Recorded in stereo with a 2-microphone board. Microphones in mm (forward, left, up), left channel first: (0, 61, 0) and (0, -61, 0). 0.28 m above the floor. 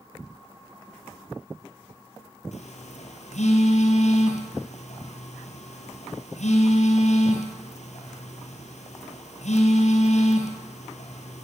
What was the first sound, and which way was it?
A phone buzzing, 80° left.